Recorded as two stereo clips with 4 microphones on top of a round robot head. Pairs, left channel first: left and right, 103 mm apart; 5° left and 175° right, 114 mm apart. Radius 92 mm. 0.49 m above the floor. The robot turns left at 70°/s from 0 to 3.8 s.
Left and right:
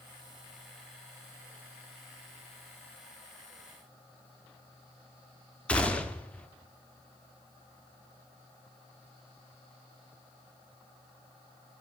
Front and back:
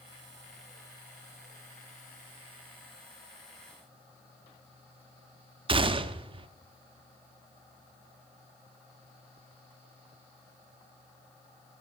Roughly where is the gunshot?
Behind.